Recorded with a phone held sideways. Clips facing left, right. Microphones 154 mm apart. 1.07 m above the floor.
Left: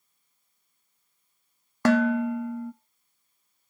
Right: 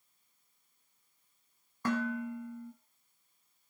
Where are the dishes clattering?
70° left (ahead or behind), 0.8 m.